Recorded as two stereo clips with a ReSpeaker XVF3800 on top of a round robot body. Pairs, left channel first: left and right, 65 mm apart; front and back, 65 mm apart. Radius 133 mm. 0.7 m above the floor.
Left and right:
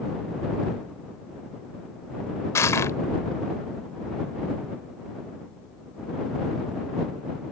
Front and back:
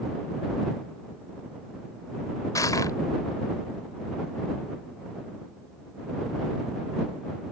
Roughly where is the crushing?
Ahead left.